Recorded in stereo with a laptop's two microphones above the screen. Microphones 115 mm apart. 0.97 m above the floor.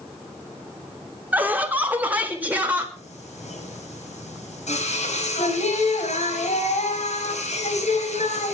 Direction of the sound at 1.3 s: 15° right (ahead or behind).